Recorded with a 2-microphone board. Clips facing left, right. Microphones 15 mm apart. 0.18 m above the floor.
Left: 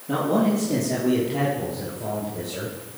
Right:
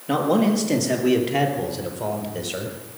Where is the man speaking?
60° right (ahead or behind), 4 m; by 2.8 s 70° right (ahead or behind), 4.5 m.